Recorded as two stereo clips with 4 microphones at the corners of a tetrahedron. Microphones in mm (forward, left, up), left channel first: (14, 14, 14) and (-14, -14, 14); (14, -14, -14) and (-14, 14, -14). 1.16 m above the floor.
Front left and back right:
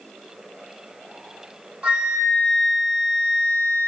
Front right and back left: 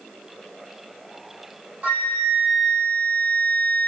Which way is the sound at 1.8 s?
175° left.